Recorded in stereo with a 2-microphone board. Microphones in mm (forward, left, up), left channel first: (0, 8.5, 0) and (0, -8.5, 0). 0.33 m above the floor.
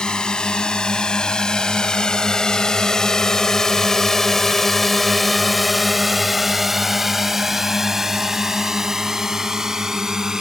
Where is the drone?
55° left (ahead or behind); by 10.4 s 30° right (ahead or behind).